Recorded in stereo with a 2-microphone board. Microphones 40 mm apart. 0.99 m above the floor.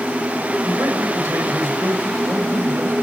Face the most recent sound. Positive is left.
turn(degrees=-80)